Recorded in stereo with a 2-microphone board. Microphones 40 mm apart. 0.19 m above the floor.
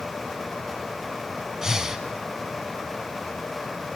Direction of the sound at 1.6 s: 15° right (ahead or behind).